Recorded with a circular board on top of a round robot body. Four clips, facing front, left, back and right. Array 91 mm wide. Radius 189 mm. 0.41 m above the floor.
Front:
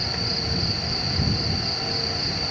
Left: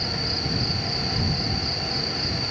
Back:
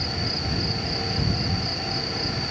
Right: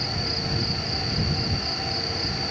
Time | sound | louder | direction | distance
0.0 | an insect | even, even | 15° left | ?